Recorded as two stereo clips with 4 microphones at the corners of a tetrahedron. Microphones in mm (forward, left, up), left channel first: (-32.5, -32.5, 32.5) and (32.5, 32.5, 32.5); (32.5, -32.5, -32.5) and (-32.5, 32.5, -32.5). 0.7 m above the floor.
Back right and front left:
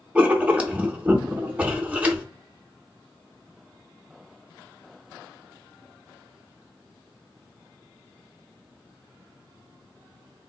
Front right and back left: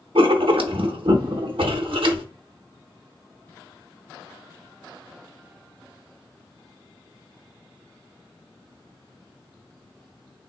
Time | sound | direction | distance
0.1 | writing | 120° left | 0.5 m